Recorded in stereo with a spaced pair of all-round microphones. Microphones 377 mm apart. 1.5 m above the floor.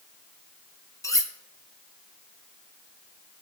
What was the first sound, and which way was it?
Cutlery clinking, 10° left (ahead or behind).